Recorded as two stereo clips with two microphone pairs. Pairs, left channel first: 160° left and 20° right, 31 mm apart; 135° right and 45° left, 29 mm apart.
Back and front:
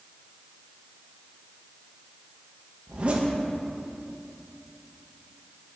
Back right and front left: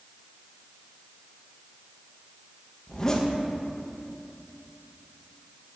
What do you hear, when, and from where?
2.9 s a zipper: 70° right, 0.7 m